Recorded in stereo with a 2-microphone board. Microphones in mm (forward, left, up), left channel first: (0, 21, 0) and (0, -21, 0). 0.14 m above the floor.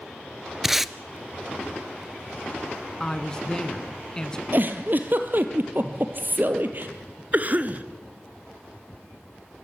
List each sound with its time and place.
0.6 s tape being pulled: 5° right (ahead or behind), 0.7 m
3.0 s a woman speaking: 15° left (ahead or behind), 1.7 m
4.5 s a giggle: 50° right (ahead or behind), 2 m
7.3 s a cough: 40° right (ahead or behind), 1.7 m